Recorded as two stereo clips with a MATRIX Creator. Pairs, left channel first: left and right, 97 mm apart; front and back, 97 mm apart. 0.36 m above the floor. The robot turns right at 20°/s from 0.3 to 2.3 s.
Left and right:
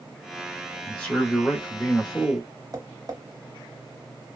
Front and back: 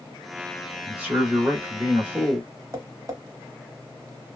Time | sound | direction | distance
0.8 | a man speaking | 150° left | 0.9 m
2.7 | tapping | 135° right | 0.9 m